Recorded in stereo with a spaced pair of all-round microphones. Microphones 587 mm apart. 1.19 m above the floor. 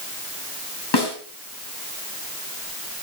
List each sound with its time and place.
0.9 s a snare drum: 40° left (ahead or behind), 4 m